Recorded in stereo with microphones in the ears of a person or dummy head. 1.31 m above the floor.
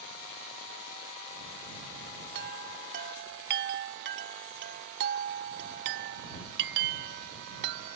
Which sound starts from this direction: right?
A chime, at 2.4 s.